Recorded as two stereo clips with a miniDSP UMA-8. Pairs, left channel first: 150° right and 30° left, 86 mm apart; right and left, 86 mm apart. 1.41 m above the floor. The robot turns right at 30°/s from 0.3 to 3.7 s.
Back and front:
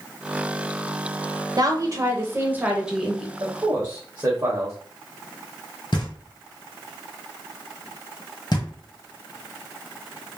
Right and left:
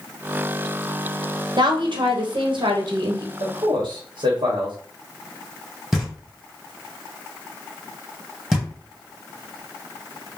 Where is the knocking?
Straight behind, 1.2 m.